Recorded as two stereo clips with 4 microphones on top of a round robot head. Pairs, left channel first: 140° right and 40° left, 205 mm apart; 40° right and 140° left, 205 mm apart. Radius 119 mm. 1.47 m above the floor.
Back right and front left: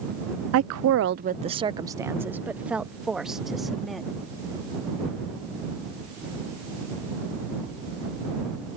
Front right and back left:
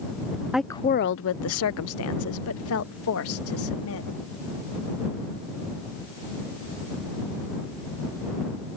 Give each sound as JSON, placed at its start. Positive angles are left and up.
{"t": 0.5, "sound": "a woman speaking", "azimuth_deg": 55}